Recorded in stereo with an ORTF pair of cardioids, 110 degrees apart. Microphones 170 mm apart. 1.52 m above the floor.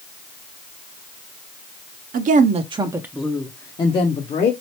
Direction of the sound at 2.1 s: 50° right.